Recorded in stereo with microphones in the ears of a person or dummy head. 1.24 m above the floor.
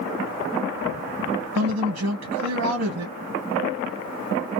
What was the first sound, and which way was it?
A man speaking, 80° right.